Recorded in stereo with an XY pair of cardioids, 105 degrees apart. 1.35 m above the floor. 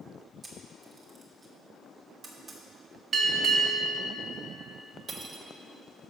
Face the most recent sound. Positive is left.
turn(degrees=-35)